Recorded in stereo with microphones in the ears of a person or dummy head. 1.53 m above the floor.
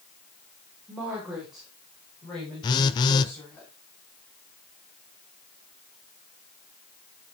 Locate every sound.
0.9 s a woman speaking: 10° right (ahead or behind), 4.5 m; by 3.6 s 15° left (ahead or behind), 8 m
2.6 s a phone buzzing: 25° left (ahead or behind), 0.8 m